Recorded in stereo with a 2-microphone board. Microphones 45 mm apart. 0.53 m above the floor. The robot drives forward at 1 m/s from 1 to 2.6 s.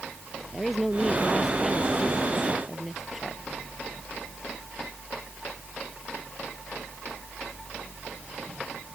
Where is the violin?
No violin in this recording.